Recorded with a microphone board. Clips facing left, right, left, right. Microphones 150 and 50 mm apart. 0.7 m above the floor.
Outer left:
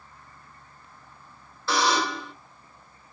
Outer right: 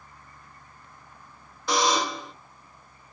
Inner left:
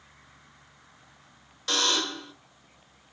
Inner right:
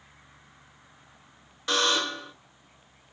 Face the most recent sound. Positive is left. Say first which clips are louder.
# even, inner right 2 dB
turn(degrees=-15)  # may be behind; listen again after turning